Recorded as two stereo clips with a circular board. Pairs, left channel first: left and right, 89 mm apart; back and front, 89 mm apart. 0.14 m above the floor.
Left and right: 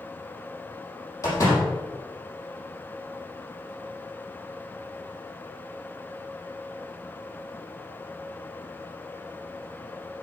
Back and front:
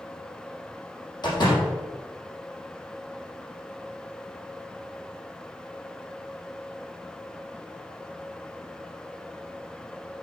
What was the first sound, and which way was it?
A door slam, 145° left.